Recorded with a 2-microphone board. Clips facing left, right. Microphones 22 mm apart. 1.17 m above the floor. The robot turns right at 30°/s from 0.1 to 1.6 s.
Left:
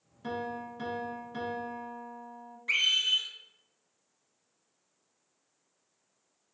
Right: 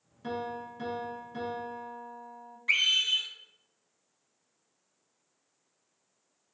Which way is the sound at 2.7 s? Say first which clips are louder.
Right 1 dB; 15° right (ahead or behind).